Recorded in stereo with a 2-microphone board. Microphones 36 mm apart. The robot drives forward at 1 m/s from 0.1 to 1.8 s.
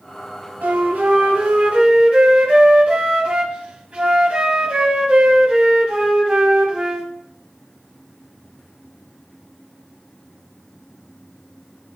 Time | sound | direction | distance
0.6 | a flute | 60° right (ahead or behind) | 1.8 m